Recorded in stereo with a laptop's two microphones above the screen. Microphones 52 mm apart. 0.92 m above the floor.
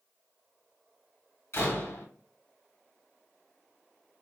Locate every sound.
1.5 s a door slam: 55° left (ahead or behind), 1.3 m